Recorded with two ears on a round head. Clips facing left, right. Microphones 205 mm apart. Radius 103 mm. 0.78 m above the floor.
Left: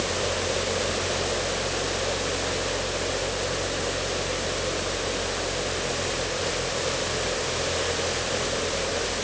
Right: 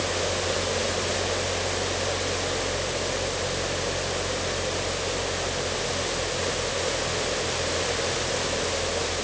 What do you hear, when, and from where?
Only background noise.